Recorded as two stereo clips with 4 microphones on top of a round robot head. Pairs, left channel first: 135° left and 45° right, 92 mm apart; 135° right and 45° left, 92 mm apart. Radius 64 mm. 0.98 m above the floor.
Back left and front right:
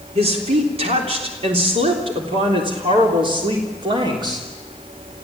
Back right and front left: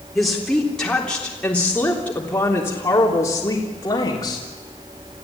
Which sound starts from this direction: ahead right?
A woman speaking, at 0.1 s.